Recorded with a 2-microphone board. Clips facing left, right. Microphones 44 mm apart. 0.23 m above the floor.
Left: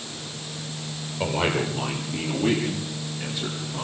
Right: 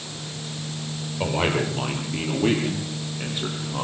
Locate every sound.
1.2 s a man speaking: 10° right (ahead or behind), 6 m; by 3.8 s 35° right (ahead or behind), 8 m